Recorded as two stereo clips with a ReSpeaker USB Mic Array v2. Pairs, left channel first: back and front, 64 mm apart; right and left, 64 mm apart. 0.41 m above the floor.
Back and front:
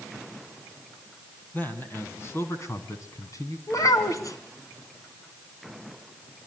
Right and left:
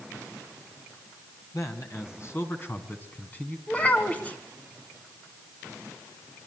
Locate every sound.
1.5 s a man speaking: 120° right, 3.5 m; by 3.6 s 155° right, 4 m
3.7 s a child speaking: 155° right, 2.5 m